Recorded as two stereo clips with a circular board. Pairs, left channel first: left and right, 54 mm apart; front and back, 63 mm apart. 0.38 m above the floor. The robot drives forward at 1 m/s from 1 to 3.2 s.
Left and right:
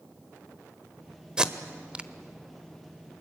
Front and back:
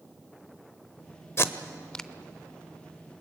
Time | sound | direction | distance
1.4 | tape being pulled | 20° right | 1.1 m